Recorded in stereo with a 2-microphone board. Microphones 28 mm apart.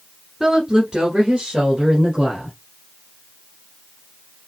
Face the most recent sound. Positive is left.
turn(degrees=-35)  # may be behind; listen again after turning